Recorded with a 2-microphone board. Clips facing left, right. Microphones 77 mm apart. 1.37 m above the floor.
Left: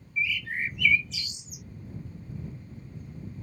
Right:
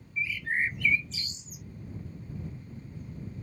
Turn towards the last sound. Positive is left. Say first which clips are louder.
# even
turn(degrees=-35)  # may be behind; listen again after turning